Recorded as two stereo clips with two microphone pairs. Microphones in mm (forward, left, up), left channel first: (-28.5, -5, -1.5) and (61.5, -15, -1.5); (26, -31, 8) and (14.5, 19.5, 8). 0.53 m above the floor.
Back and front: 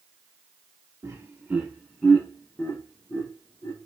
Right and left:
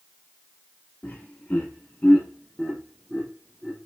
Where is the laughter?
40° right, 0.9 m; by 3.9 s 170° right, 1.4 m.